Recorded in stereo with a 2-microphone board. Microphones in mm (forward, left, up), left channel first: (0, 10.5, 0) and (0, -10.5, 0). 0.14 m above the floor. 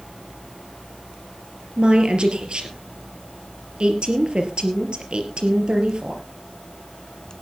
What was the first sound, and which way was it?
A woman speaking, 50° right (ahead or behind).